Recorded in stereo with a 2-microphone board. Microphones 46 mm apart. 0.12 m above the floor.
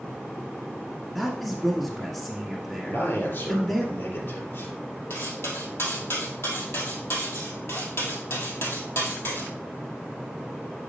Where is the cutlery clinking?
65° left (ahead or behind), 2 m.